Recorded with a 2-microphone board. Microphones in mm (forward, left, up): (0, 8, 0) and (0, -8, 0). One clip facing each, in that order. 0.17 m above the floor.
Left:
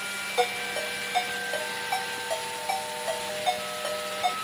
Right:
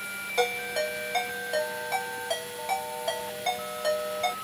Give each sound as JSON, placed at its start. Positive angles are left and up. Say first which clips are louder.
{"t": 0.4, "sound": "a ringtone", "louder": "right 1 dB", "side_deg": -10, "distance_m": 1.9}